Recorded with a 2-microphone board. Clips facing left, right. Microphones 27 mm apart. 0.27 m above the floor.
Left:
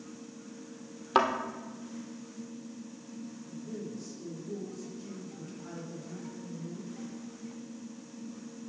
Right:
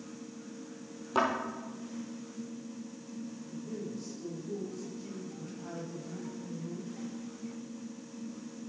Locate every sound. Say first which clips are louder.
1.1 s a thud: left 3 dB; 45° left (ahead or behind), 1.8 m
3.5 s a man speaking: even; 10° right (ahead or behind), 5 m